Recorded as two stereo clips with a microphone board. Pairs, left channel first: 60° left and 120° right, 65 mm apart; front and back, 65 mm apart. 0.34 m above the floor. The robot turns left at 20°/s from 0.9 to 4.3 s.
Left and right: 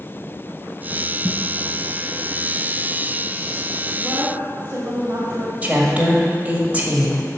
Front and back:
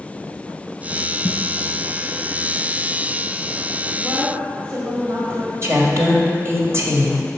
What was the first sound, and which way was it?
A snare drum, 60° right.